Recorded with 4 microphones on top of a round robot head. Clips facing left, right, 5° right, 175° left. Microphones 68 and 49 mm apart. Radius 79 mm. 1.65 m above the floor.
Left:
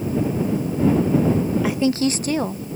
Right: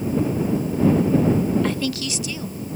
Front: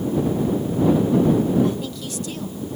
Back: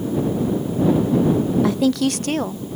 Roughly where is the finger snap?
I don't hear a finger snap.